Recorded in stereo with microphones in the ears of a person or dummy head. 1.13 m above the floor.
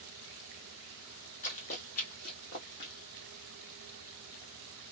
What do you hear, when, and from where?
1.4 s running footsteps: 45° left (ahead or behind), 2 m; by 2.9 s 50° left (ahead or behind), 1.6 m